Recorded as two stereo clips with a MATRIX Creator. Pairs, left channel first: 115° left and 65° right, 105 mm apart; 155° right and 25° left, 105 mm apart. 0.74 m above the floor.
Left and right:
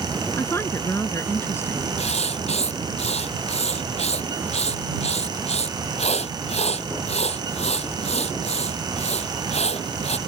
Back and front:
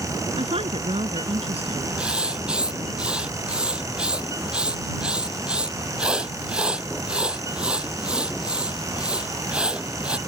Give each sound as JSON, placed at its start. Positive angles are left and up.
{"t": 0.4, "sound": "a woman speaking", "azimuth_deg": 45}
{"t": 2.0, "sound": "writing", "azimuth_deg": 105}